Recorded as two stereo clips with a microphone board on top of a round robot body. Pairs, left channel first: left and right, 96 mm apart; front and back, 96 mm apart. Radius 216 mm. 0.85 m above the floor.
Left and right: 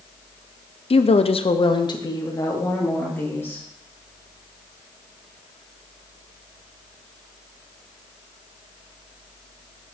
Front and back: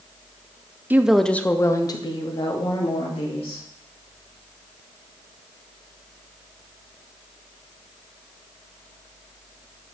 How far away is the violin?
I don't hear a violin.